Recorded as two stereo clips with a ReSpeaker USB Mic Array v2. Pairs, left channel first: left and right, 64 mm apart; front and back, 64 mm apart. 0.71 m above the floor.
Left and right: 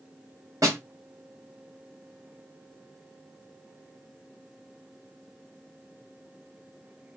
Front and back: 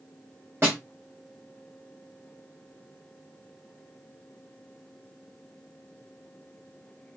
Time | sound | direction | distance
0.6 | a snare drum | 125° right | 3 m